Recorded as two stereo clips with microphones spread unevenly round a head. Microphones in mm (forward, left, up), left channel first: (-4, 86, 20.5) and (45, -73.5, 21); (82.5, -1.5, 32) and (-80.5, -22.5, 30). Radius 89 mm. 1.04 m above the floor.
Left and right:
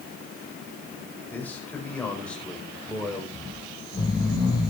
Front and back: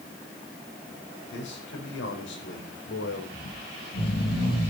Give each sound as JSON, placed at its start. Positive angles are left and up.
{"t": 1.3, "sound": "a man speaking", "azimuth_deg": 25, "distance_m": 5.5}
{"t": 3.3, "sound": "snoring", "azimuth_deg": 40, "distance_m": 7.0}